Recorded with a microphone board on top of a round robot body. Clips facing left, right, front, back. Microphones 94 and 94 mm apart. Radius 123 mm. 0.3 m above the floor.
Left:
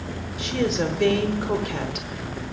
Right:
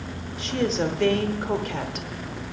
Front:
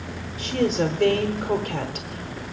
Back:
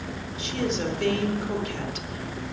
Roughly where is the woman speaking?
Ahead.